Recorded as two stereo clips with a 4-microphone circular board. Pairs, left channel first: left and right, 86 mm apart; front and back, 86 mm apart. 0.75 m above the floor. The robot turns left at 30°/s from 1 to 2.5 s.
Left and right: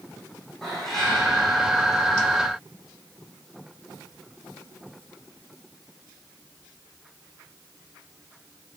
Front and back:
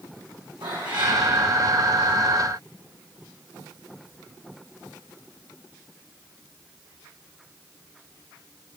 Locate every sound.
0.6 s a cat meowing: 175° left, 4 m; by 1.2 s 170° left, 4 m